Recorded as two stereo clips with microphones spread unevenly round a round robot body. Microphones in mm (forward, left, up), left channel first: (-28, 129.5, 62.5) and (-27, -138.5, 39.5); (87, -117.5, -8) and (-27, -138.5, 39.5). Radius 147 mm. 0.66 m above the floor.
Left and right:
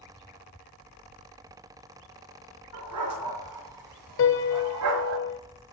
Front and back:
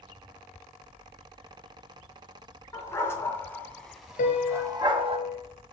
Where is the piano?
45° left, 1.1 m.